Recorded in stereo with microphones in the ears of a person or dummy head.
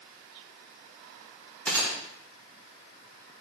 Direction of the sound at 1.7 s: 5° left (ahead or behind).